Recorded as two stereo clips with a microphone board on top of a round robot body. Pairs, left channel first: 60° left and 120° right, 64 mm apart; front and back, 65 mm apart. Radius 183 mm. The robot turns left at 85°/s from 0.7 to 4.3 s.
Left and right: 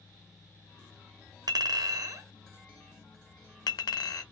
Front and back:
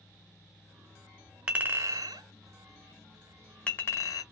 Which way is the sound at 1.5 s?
110° right.